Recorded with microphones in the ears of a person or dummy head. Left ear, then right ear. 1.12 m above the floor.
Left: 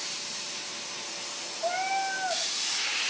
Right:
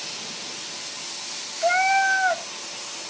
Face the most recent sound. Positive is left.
turn(degrees=-70)  # may be behind; listen again after turning